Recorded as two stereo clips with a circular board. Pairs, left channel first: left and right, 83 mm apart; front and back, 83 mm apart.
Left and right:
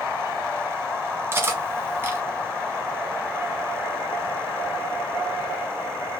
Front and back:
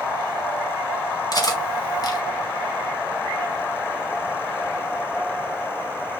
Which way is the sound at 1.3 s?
30° right.